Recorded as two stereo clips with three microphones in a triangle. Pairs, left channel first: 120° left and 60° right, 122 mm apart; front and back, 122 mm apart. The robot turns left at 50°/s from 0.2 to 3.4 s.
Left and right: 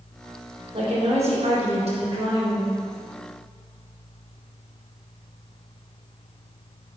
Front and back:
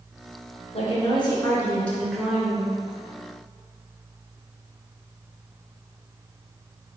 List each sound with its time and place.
0.7 s a woman speaking: 20° right, 3 m; by 2.8 s 125° right, 3 m